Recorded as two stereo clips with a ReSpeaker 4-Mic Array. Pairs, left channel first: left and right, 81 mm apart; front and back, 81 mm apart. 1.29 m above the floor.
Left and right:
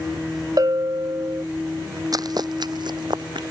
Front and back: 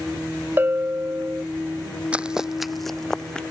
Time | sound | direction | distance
0.6 | a bell | 125° right | ?
2.1 | running footsteps | 110° right | ?